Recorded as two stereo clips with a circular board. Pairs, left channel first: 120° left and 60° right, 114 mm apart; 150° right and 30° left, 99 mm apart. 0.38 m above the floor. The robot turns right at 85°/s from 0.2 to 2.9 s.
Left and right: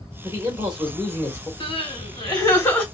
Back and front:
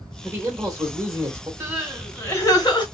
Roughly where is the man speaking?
Ahead right.